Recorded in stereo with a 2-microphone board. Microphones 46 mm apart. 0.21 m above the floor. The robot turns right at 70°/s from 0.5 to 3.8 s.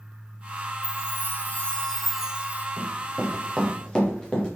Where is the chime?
90° left, 1.6 m; by 2.7 s 140° right, 1.6 m.